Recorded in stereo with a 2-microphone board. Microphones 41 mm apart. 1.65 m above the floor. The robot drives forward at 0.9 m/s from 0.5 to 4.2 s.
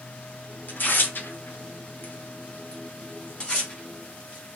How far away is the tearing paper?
About 1.2 m.